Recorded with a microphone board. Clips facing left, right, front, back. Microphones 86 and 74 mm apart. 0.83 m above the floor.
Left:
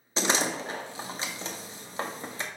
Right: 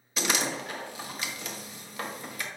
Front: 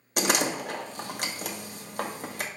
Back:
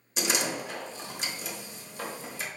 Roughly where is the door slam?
Ahead left.